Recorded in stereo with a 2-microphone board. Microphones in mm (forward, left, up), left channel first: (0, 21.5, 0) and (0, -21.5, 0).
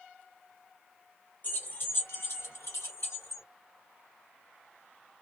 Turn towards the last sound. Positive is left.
turn(degrees=80)